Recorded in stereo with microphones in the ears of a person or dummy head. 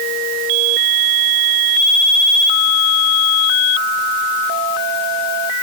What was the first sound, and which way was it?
Only background noise.